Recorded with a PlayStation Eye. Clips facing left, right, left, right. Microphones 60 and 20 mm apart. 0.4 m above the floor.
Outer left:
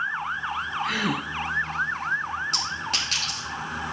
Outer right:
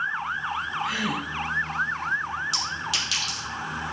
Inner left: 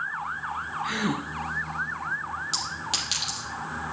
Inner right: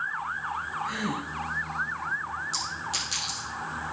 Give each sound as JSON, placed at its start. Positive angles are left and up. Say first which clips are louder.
{"t": 0.8, "sound": "a gasp", "louder": "outer left 1 dB, inner left 3 dB", "side_deg": 60, "distance_m": 2.5}
{"t": 2.5, "sound": "a clink", "louder": "even, inner left 4 dB", "side_deg": 45, "distance_m": 5.5}